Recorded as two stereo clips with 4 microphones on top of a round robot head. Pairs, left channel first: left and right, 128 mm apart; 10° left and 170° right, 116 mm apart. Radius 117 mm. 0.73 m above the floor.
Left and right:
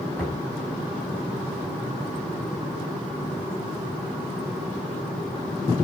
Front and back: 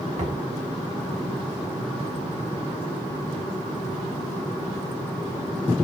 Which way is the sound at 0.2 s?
175° left.